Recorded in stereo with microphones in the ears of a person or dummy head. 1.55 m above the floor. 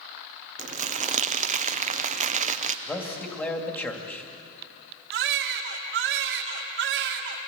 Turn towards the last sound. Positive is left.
turn(degrees=-65)  # may be behind; listen again after turning